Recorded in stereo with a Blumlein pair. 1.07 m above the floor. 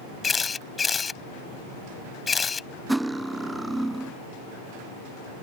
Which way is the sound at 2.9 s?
5° right.